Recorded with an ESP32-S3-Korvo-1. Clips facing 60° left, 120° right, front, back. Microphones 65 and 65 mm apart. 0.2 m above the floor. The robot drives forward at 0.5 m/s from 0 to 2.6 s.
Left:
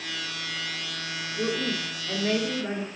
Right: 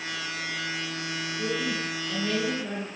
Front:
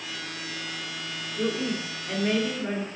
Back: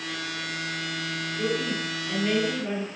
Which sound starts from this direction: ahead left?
A woman speaking, at 1.4 s.